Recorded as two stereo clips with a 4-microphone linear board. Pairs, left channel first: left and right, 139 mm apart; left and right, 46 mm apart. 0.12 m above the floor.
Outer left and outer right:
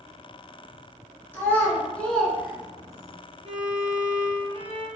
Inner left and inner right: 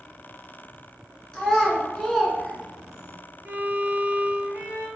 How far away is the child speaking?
About 0.8 m.